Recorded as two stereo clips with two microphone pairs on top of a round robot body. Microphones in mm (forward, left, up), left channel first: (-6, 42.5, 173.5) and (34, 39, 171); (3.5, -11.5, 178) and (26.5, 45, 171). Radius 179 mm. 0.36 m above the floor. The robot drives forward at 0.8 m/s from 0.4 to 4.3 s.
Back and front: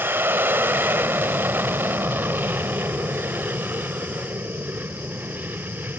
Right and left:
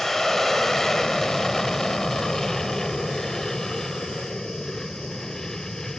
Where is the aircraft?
20° right; by 6.0 s 25° right.